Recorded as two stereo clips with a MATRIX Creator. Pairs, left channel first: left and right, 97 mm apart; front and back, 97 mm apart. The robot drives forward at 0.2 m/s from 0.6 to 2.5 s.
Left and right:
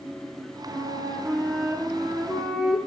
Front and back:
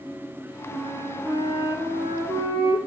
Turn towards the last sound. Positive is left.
turn(degrees=-175)